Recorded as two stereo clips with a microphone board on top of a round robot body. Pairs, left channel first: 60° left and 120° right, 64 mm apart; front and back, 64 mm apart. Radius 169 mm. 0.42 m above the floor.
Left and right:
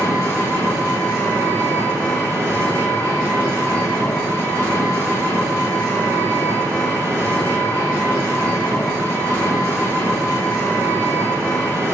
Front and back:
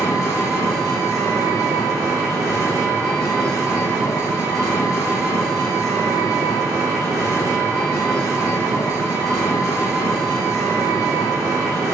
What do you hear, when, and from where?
0.0 s an engine running: 10° left, 1.7 m